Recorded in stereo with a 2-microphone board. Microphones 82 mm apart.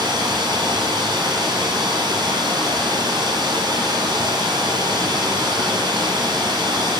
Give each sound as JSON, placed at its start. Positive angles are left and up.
{"t": 0.0, "sound": "running water", "side_deg": -60, "distance_m": 0.7}